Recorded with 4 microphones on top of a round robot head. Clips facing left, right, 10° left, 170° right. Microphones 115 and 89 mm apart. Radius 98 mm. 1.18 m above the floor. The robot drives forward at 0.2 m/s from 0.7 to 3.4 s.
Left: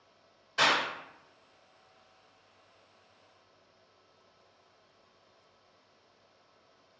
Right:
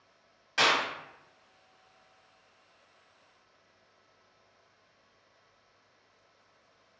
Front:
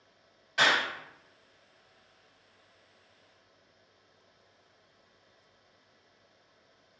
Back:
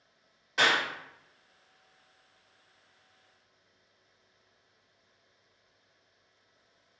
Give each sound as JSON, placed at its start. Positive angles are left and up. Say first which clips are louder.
{"t": 0.6, "sound": "a clap", "louder": "right 1 dB, even", "azimuth_deg": -100, "distance_m": 1.5}